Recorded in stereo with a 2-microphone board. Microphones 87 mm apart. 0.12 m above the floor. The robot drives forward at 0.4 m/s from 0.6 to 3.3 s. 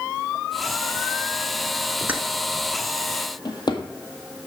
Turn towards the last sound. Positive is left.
turn(degrees=60)  # may be behind; listen again after turning